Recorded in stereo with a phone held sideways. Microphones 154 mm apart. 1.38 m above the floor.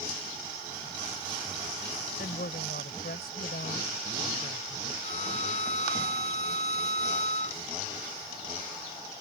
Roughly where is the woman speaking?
Left.